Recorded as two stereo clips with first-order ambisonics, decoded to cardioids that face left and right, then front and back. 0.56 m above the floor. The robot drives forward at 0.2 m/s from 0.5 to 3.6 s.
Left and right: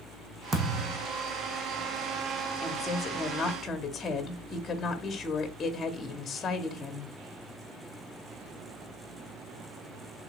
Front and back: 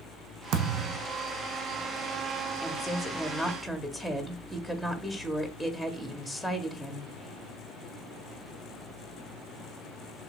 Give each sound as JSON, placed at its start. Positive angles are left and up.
{"t": 0.5, "sound": "a thud", "azimuth_deg": -155, "distance_m": 1.0}
{"t": 2.6, "sound": "a woman speaking", "azimuth_deg": 60, "distance_m": 0.7}